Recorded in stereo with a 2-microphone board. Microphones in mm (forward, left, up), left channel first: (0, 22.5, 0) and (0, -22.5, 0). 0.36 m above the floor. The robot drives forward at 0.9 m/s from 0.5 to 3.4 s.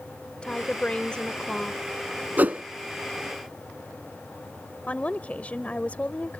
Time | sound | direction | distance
0.4 | a woman speaking | 25° left (ahead or behind) | ?
2.4 | a whoosh | 40° right (ahead or behind) | ?
4.9 | a woman speaking | 30° left (ahead or behind) | ?